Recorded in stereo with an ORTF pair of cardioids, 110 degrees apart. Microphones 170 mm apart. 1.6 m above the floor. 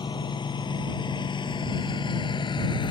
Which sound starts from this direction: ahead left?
A lawn mower, at 0.0 s.